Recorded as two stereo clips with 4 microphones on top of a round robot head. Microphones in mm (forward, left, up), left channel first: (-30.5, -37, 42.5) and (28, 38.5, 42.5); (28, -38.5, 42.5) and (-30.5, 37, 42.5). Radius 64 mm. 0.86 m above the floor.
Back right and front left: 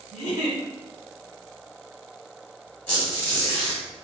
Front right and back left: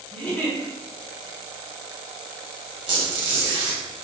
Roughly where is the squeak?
Behind.